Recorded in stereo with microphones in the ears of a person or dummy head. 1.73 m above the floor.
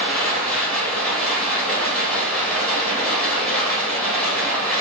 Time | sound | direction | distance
0.0 | running water | centre (ahead or behind) | 1.1 m